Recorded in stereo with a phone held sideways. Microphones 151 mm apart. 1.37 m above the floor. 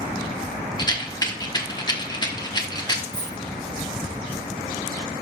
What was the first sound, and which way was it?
A rattle, 25° left (ahead or behind).